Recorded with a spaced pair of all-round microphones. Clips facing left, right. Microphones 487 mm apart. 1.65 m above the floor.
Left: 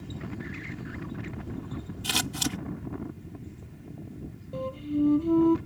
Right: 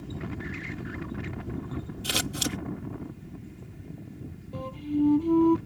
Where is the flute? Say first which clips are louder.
Even; 10° right (ahead or behind).